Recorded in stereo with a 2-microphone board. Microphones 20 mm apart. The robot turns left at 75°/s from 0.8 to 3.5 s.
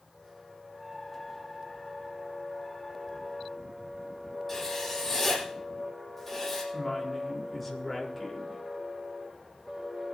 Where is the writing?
5° left (ahead or behind), 7 m.